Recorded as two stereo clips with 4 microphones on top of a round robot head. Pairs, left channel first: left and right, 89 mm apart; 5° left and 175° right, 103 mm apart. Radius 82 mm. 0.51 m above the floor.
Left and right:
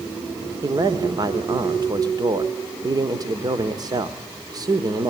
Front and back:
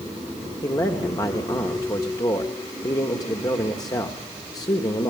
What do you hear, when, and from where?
0.6 s a man speaking: 50° right, 1.3 m